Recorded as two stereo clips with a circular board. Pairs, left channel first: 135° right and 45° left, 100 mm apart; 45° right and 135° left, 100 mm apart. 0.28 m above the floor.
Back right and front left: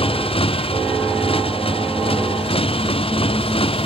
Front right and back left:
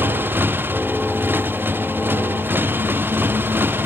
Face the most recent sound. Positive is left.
turn(degrees=-155)